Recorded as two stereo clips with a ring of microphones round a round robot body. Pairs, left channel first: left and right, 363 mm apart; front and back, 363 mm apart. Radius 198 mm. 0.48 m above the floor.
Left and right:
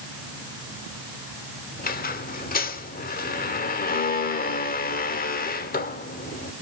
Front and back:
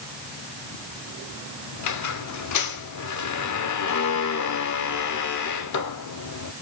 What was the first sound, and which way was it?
A squeak, 30° left.